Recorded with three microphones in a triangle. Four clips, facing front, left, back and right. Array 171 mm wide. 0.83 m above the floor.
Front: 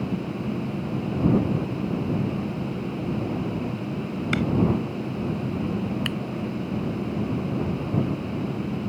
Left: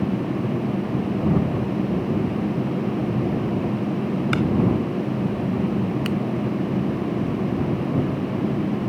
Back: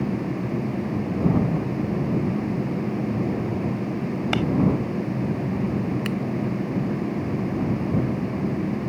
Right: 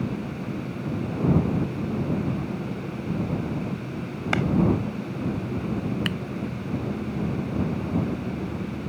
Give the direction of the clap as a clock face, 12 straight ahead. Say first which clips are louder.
Even, even; 5 o'clock.